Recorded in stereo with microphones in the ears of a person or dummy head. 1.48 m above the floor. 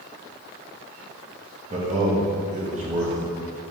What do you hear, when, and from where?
1.7 s a man speaking: 40° right (ahead or behind), 0.7 m